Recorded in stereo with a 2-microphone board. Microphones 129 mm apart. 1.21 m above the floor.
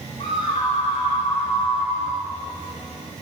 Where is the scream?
55° left (ahead or behind), 5.5 m.